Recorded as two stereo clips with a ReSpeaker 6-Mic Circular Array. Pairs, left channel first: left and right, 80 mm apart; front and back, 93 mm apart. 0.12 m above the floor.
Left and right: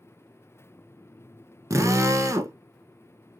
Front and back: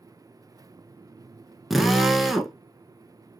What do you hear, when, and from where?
1.7 s a drill: 95° right, 0.6 m